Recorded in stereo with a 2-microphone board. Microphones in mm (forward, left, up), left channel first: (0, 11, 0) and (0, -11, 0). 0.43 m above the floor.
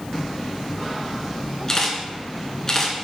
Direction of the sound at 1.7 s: 30° left (ahead or behind).